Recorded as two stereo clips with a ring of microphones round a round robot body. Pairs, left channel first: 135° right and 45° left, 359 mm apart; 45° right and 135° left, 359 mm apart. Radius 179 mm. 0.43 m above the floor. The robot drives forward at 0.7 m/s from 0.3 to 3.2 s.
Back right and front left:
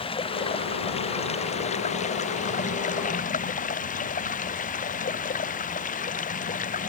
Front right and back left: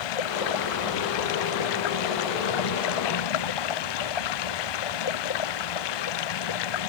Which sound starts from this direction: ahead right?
Running water, at 0.0 s.